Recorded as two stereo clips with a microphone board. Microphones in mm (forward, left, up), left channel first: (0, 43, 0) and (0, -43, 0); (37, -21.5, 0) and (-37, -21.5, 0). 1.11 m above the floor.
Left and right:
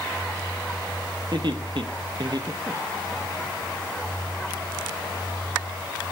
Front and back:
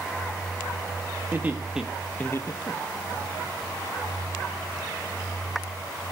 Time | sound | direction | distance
1.3 | laughter | 120° right | 1.5 m